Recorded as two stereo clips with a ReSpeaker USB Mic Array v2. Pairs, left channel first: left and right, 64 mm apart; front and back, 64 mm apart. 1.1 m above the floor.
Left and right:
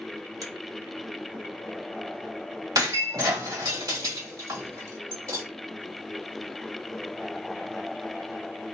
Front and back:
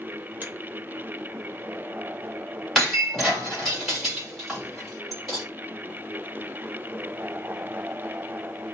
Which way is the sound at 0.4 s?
120° right.